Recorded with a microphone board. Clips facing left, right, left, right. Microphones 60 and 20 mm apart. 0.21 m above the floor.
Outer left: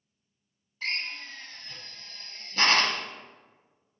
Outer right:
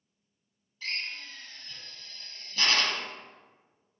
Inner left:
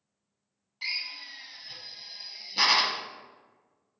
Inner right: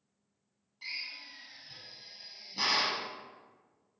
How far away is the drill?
About 0.6 m.